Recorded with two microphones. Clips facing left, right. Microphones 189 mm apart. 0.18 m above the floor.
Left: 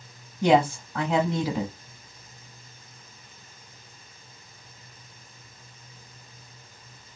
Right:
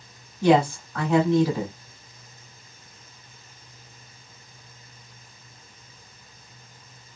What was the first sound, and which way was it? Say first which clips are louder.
A woman speaking: right 2 dB; 20° left (ahead or behind).